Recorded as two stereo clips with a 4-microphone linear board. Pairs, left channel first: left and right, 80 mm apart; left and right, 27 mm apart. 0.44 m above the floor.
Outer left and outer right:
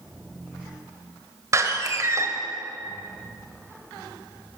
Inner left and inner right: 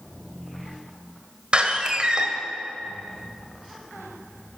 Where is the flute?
I don't hear a flute.